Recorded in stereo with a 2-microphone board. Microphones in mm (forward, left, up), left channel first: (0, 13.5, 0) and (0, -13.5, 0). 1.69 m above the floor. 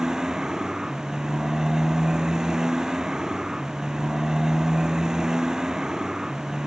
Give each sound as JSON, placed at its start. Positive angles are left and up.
{"t": 0.0, "sound": "a motorcycle", "side_deg": -20}